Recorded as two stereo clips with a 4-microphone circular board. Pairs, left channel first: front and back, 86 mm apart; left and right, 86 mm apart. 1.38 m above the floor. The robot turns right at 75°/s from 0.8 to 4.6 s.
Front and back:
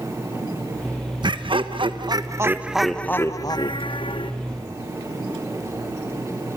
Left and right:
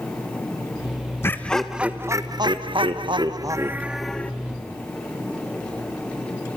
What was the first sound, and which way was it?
Laughter, 150° left.